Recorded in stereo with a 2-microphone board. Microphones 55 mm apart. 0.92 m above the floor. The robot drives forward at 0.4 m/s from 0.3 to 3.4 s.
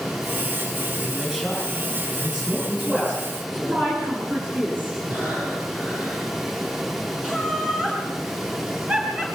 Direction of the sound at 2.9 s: 40° right (ahead or behind).